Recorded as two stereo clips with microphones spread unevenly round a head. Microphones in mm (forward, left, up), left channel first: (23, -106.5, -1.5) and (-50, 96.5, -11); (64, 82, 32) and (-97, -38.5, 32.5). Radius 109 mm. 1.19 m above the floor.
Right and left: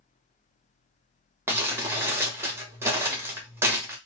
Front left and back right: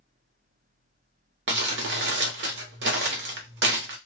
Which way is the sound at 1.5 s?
170° right.